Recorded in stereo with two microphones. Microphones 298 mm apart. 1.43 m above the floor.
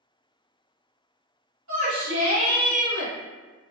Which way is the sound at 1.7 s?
70° right (ahead or behind).